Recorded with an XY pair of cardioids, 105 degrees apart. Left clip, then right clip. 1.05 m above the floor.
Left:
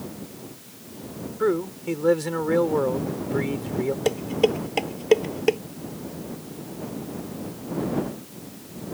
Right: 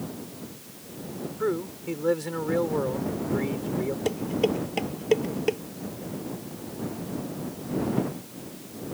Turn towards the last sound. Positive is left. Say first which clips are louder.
# left 4 dB
turn(degrees=30)